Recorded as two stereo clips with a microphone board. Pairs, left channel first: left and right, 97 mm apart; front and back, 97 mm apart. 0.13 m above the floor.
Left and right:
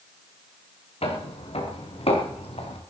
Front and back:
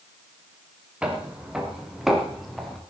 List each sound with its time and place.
1.0 s footsteps: 100° left, 4.5 m; by 2.8 s 85° left, 4 m